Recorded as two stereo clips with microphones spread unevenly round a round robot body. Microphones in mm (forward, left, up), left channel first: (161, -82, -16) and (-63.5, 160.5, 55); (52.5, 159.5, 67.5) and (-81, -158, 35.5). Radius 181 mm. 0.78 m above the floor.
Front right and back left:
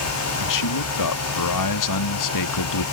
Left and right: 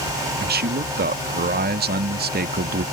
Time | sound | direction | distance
0.4 | a man speaking | 55° right | ?